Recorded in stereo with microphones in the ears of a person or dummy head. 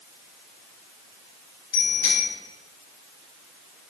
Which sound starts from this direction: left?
A bicycle bell, at 1.7 s.